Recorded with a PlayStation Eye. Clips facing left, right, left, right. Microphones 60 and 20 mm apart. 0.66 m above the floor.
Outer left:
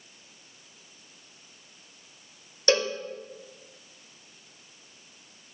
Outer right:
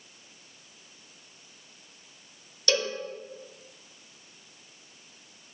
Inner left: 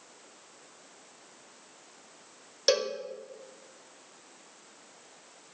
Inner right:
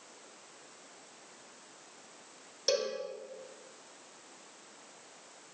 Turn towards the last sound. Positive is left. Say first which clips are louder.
# outer left 4 dB, inner left 5 dB
turn(degrees=35)  # may be behind; listen again after turning